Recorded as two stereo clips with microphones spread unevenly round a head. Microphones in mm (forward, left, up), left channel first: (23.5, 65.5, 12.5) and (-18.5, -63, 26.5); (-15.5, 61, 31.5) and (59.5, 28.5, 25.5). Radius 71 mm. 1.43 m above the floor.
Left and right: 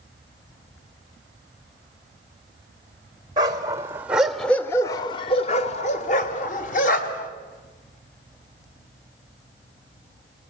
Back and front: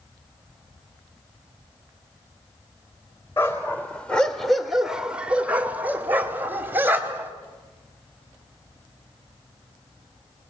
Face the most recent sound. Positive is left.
turn(degrees=40)